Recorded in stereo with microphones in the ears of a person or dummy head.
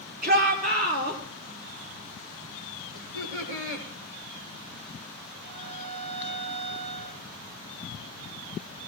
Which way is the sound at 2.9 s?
70° right (ahead or behind).